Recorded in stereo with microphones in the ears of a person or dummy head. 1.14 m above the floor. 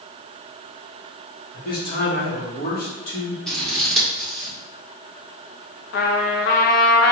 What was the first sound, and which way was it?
A man speaking, 55° left (ahead or behind).